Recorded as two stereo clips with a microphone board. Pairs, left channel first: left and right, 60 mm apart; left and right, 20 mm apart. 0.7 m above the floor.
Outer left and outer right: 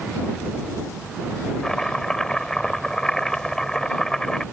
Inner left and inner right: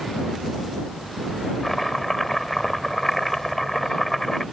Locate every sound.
1.6 s chopping: 10° left (ahead or behind)